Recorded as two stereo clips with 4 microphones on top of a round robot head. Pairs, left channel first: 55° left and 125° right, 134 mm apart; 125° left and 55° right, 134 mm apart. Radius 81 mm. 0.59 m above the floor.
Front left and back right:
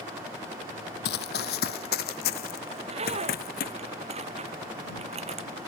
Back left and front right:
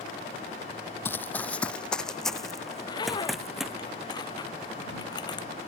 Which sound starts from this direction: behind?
A zipper, at 2.7 s.